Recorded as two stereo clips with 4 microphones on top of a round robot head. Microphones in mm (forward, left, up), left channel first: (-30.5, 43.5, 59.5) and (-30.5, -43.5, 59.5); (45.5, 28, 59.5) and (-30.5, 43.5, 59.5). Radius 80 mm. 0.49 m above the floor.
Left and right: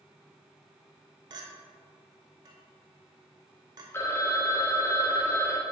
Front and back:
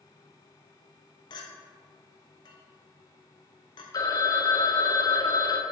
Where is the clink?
40° right, 1.0 m.